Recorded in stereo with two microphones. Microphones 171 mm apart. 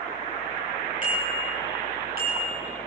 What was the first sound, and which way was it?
A bicycle bell, 50° right (ahead or behind).